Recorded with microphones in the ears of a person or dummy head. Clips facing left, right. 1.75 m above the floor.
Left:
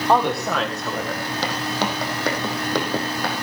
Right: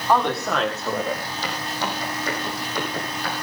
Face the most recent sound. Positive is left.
turn(degrees=65)  # may be behind; listen again after turning